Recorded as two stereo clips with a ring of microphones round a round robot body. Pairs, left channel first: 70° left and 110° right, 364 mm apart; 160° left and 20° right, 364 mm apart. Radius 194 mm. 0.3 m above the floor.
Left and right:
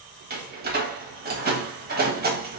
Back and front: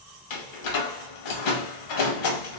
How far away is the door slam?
About 1.2 m.